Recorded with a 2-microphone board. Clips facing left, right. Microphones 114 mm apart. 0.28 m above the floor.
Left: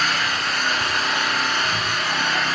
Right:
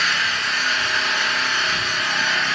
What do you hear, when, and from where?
0.0 s an engine running: 35° left (ahead or behind), 4 m